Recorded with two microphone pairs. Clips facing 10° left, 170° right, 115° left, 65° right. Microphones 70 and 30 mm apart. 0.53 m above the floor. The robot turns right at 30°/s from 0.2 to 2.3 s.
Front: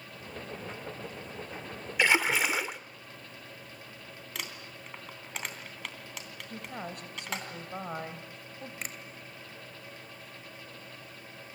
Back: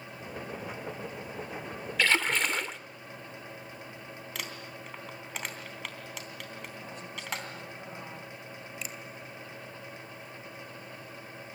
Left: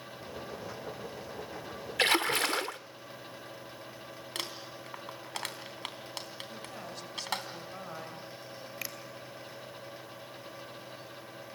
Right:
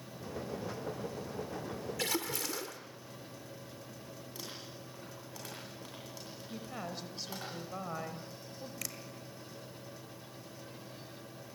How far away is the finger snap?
About 2.5 m.